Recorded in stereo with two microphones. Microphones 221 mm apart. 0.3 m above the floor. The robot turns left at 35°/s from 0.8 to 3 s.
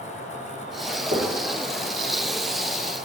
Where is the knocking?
40° right (ahead or behind), 5 m; by 1.3 s 35° right (ahead or behind), 5 m.